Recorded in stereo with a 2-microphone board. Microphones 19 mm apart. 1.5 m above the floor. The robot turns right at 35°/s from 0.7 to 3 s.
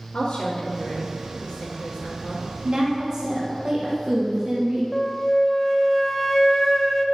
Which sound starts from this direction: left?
A woman speaking, at 0.1 s.